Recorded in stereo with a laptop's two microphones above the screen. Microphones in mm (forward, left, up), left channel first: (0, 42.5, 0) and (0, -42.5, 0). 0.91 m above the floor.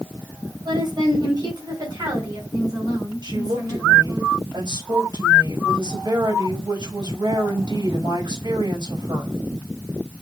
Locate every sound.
0.7 s a woman speaking: 60° right (ahead or behind), 4 m; by 4.2 s 45° right (ahead or behind), 5.5 m
3.2 s a woman speaking: 55° right (ahead or behind), 5.5 m